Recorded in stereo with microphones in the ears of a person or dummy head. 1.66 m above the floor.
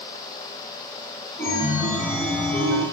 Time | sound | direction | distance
1.4 | a chime | 10° left (ahead or behind) | 0.6 m